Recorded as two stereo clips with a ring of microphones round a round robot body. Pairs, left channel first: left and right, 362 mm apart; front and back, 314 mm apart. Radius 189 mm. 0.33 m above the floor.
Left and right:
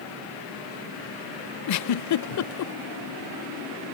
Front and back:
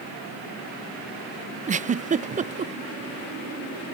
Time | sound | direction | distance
1.7 | a giggle | 115° left | 0.6 m